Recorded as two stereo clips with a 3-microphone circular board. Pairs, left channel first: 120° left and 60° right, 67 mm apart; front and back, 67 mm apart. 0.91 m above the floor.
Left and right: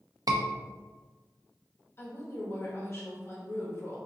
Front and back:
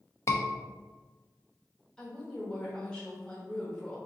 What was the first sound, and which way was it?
A scream, 45° right.